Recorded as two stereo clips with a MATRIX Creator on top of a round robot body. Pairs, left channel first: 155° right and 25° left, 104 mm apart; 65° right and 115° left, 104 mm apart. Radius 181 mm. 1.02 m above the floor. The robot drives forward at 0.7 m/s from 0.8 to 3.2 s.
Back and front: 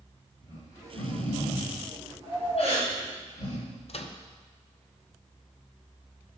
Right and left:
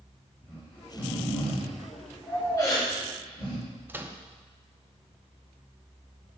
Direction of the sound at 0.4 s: 145° right.